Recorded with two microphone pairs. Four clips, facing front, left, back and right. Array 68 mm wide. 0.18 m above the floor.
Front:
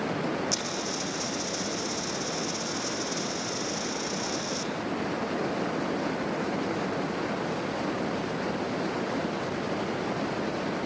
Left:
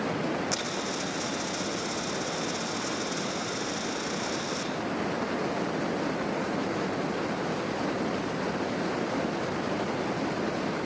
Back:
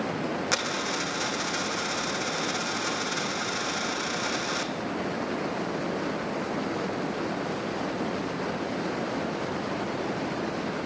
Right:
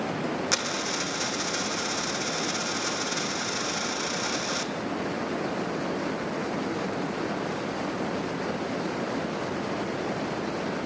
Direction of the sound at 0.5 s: 155° right.